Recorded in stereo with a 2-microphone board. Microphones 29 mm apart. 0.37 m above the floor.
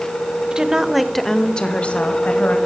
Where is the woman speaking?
25° right (ahead or behind), 1.2 m; by 2.6 s 60° left (ahead or behind), 1.8 m.